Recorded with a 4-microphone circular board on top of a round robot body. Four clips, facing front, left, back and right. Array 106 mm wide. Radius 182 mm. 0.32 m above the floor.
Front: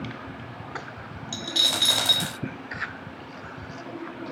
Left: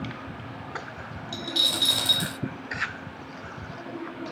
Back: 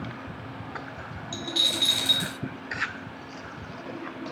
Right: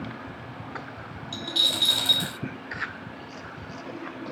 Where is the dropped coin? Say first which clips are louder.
Even, front 2 dB; 5° left, 0.6 m.